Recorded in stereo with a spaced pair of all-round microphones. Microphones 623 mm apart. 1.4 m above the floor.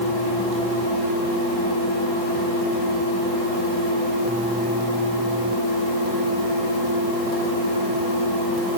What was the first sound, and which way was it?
Only background noise.